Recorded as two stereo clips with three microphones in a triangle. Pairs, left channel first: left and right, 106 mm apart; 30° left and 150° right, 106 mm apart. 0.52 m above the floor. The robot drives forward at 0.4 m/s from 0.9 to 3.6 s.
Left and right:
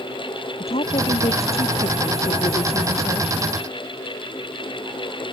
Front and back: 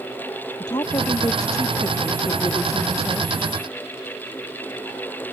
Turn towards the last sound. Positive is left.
turn(degrees=85)